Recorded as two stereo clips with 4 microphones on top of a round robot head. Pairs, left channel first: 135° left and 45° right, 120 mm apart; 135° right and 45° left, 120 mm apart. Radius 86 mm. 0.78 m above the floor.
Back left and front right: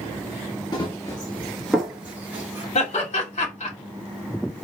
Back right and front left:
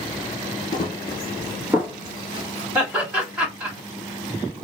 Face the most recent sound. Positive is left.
turn(degrees=125)